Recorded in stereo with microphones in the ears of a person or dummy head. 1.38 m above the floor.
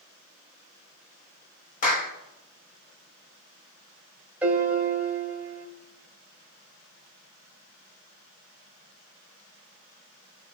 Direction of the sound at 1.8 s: 40° left (ahead or behind).